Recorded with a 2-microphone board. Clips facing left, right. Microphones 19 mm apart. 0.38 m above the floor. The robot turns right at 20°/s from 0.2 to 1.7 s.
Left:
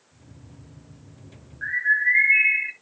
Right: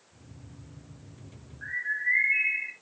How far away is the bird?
About 0.6 m.